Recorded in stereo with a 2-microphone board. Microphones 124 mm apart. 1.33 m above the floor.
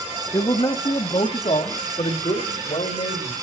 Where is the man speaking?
40° left (ahead or behind), 1.5 m; by 3.3 s 70° left (ahead or behind), 4 m.